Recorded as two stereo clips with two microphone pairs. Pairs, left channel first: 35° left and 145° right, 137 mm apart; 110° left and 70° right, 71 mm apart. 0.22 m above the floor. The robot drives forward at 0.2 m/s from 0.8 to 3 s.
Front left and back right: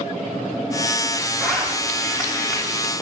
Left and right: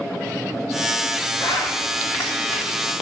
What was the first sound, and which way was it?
A zipper, 125° left.